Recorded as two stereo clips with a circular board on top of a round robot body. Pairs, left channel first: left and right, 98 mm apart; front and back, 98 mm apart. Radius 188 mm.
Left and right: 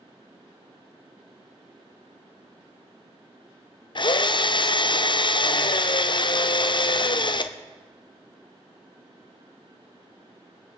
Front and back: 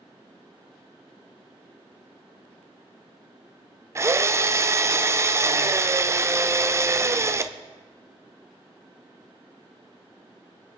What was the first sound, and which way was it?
A drill, 120° left.